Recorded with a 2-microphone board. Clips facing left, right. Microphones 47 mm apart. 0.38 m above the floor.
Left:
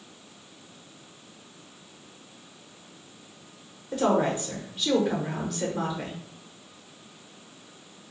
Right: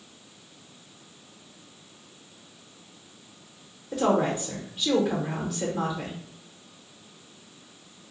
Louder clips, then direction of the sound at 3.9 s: Even; 5° left (ahead or behind).